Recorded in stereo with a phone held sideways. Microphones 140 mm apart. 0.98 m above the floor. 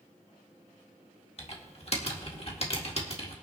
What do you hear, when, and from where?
1.4 s typing on a keyboard: 45° left (ahead or behind), 1.6 m